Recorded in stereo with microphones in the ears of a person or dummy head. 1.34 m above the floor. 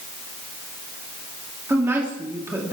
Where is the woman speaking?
10° right (ahead or behind), 3 m.